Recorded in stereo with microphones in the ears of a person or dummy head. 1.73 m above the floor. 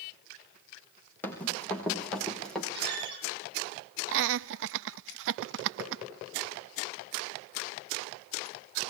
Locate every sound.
1.2 s running footsteps: 10° left (ahead or behind), 4.5 m; by 2.6 s 5° left (ahead or behind), 4.5 m
2.7 s a squeak: 60° right (ahead or behind), 9 m
4.1 s laughter: 70° right (ahead or behind), 0.5 m